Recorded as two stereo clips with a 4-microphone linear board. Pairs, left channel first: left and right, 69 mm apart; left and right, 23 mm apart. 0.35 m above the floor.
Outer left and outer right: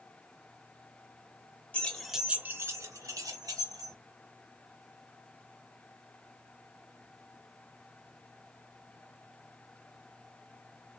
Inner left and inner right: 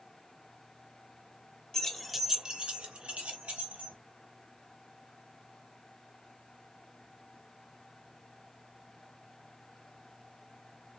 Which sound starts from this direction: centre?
Keys jangling, at 1.7 s.